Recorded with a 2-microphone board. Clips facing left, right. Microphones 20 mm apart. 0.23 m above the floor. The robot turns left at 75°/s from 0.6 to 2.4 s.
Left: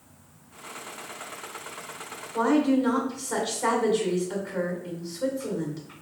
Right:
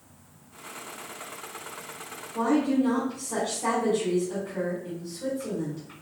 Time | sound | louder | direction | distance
2.3 | a woman speaking | left 2 dB | 35° left (ahead or behind) | 1.7 m